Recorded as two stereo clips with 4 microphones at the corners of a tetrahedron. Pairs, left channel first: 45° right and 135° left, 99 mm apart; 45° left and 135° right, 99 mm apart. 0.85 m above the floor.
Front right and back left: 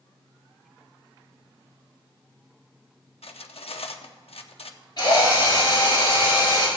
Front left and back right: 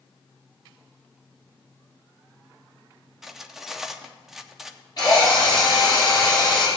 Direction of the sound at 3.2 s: 50° right.